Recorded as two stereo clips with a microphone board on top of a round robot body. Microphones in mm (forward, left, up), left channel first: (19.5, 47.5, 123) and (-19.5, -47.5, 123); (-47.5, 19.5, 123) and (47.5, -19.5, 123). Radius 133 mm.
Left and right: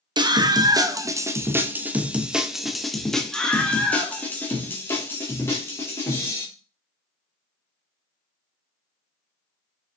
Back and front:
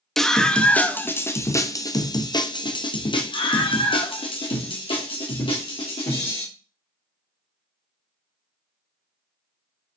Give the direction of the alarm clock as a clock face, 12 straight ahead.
I don't hear an alarm clock.